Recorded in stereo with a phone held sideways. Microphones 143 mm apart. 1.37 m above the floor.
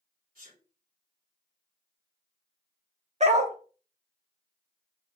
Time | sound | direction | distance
0.3 | a sneeze | 75° right (ahead or behind) | 4 m
3.2 | a dog barking | 50° right (ahead or behind) | 1.2 m